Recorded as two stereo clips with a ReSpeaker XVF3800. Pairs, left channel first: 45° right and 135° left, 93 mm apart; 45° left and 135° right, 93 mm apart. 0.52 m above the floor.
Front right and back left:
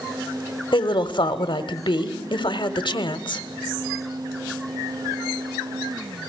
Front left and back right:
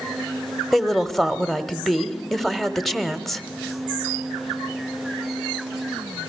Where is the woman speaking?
45° right, 1.3 m.